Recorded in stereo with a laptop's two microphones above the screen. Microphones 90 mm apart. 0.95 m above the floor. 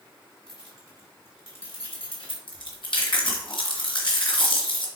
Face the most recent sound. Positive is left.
turn(degrees=65)  # may be behind; listen again after turning